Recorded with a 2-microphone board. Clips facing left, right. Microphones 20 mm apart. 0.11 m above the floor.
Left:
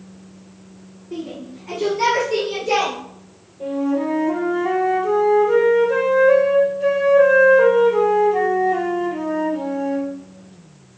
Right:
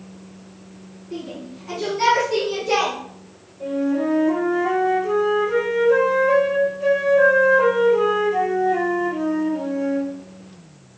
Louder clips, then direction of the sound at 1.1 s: Left 2 dB; centre (ahead or behind).